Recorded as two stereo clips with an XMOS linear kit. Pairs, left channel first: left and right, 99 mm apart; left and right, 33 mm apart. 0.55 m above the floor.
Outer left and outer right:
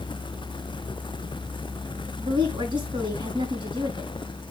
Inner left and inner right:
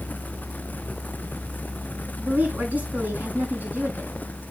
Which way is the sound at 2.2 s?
55° right (ahead or behind).